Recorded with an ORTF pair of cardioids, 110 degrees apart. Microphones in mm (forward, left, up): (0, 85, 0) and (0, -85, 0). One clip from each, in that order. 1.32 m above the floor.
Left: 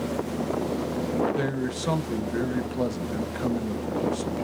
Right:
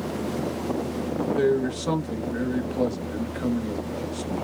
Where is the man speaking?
10° left, 0.7 m.